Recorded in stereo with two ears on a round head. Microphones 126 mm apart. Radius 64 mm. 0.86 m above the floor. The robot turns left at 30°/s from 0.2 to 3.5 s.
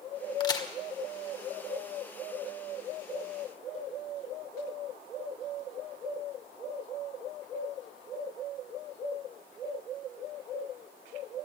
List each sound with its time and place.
0.4 s a crack: 30° left (ahead or behind), 1.8 m; by 0.7 s 25° left (ahead or behind), 1.8 m